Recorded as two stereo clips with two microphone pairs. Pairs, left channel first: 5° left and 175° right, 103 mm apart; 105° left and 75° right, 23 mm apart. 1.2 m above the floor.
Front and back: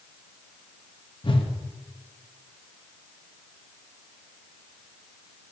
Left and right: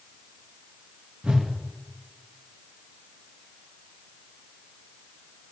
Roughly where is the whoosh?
Ahead right.